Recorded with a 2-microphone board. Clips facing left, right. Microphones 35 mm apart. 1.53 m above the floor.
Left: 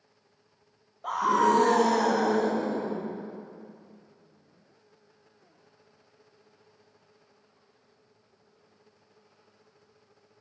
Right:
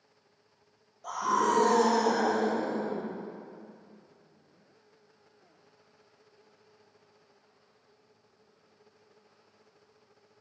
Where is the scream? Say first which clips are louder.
Left 4 dB; 35° left (ahead or behind), 1.0 m; by 3.0 s 55° left (ahead or behind), 1.9 m.